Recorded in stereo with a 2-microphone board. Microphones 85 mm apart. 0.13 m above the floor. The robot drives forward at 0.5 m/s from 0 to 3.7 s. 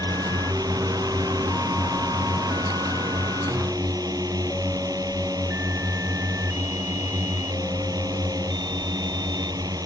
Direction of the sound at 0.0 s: 50° right (ahead or behind).